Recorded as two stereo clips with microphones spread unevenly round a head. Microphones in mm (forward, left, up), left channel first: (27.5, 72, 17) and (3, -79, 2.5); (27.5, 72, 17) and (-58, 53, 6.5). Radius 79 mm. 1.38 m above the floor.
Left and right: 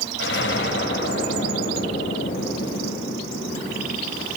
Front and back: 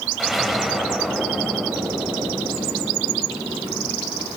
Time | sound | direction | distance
0.2 | an explosion | 105° left | 3.5 m